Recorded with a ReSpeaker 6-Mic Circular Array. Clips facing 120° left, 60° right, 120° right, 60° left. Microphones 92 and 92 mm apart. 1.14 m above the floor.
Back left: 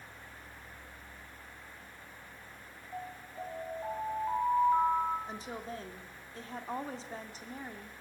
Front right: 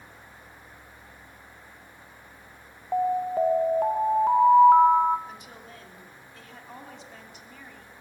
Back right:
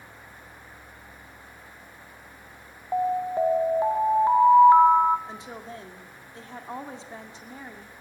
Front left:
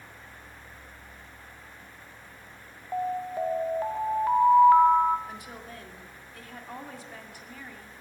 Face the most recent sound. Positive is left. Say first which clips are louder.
# back left 4 dB, back right 3 dB
turn(degrees=175)